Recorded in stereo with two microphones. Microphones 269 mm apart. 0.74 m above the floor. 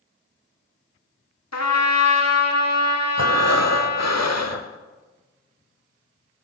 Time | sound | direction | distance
1.5 | a trumpet | 70° left (ahead or behind) | 1.5 m
3.2 | breathing | 75° left (ahead or behind) | 0.9 m